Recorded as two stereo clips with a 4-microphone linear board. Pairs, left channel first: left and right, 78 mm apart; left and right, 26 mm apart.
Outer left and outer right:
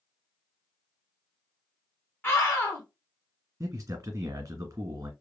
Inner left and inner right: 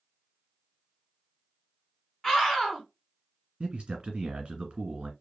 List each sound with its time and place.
2.2 s a scream: 30° left (ahead or behind), 1.3 m
3.6 s a man speaking: 35° right (ahead or behind), 1.6 m